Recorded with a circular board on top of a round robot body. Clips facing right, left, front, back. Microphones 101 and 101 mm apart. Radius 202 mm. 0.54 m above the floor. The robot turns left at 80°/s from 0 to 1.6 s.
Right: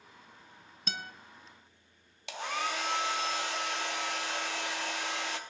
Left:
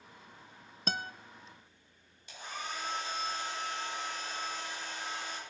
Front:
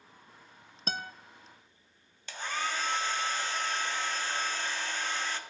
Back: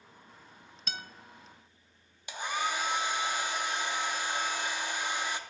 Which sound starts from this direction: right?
A hair dryer, at 2.3 s.